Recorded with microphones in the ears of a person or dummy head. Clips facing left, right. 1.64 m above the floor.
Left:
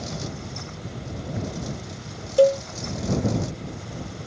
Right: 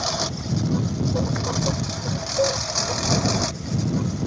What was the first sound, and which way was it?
A lawn mower, 80° right.